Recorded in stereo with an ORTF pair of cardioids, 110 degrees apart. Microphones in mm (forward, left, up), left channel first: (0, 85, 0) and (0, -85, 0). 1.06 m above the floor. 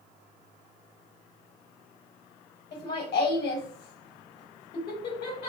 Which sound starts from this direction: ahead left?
Laughter, at 2.7 s.